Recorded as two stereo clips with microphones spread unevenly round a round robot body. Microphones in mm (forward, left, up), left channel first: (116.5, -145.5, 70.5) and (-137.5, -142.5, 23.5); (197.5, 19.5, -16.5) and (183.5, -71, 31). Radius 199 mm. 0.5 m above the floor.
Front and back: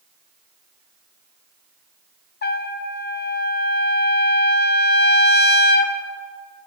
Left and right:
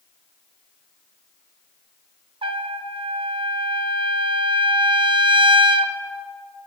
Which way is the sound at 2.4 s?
60° right.